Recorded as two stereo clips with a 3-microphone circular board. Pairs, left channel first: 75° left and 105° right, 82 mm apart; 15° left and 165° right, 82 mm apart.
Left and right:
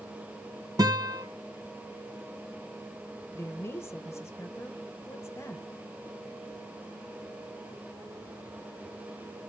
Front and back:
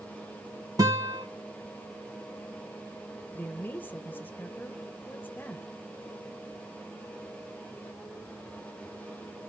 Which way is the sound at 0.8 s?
130° right.